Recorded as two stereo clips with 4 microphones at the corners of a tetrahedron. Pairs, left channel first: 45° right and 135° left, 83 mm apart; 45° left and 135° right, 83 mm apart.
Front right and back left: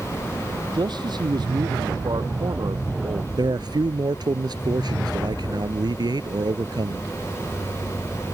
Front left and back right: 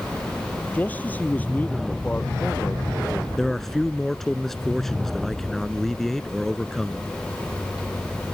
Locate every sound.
0.7 s a man speaking: 115° left
3.4 s a man speaking: 130° left